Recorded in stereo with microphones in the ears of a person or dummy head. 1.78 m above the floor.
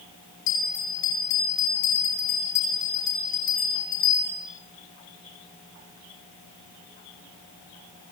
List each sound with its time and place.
0.5 s a bell: 70° left (ahead or behind), 7 m